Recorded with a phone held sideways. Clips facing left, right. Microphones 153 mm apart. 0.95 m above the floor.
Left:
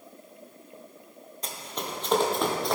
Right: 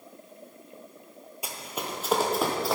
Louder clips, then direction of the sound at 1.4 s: Even; 10° right (ahead or behind).